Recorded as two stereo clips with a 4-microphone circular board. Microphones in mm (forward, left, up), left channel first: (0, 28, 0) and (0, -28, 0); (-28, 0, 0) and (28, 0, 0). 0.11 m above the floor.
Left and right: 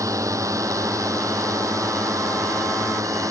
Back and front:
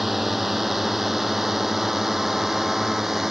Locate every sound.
0.0 s a drone: 85° right